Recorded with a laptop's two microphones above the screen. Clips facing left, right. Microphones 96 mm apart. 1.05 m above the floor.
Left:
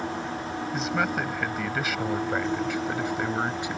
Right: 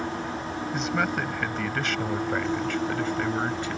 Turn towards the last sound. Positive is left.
turn(degrees=15)  # may be behind; listen again after turning